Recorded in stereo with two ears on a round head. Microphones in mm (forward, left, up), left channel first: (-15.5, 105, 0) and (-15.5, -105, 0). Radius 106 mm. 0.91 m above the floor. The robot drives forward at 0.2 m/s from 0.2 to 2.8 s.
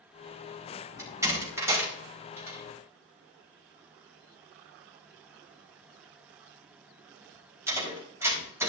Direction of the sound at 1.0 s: 15° right (ahead or behind).